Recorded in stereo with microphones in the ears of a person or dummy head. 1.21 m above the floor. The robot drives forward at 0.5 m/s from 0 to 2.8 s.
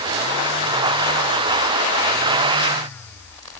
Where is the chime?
I don't hear a chime.